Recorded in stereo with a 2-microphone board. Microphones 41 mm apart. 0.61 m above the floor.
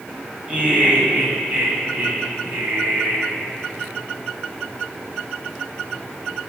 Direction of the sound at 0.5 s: 25° right (ahead or behind).